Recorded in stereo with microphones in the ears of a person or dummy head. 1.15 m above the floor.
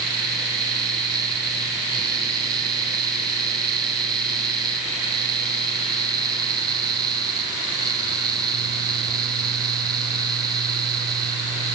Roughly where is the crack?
No crack in this recording.